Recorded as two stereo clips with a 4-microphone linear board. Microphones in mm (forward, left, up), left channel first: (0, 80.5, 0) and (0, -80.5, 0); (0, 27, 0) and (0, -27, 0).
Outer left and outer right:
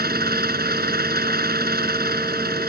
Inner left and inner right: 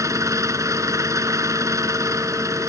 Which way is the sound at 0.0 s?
75° right (ahead or behind).